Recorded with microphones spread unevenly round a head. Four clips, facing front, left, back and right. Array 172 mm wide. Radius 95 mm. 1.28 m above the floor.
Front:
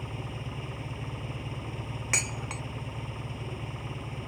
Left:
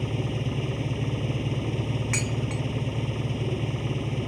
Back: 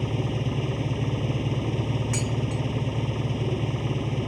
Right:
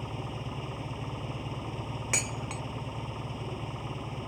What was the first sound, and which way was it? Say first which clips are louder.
An engine running: left 8 dB, back 11 dB; 165° left.